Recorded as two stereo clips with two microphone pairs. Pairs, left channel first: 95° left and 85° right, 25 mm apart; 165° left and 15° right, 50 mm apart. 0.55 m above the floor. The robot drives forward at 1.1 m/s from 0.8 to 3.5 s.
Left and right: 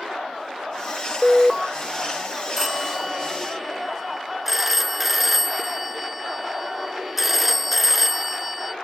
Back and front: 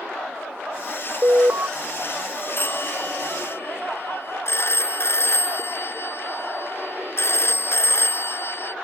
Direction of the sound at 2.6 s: 155° right.